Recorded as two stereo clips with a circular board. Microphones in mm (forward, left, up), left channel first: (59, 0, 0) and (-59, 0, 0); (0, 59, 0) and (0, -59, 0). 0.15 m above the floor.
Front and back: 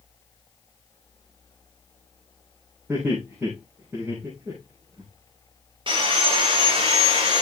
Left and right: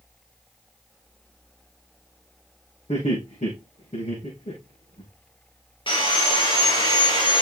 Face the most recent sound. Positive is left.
turn(degrees=135)